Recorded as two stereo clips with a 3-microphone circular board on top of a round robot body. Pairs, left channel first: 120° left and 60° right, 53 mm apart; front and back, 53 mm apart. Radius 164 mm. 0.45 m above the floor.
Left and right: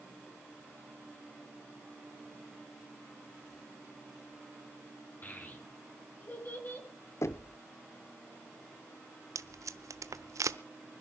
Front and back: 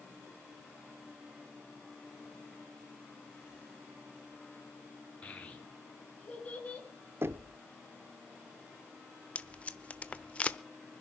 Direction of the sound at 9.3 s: 65° right.